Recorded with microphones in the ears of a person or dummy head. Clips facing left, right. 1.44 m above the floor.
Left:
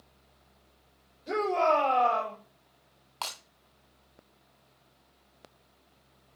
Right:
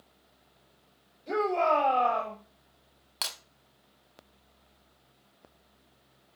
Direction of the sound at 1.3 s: 10° left (ahead or behind).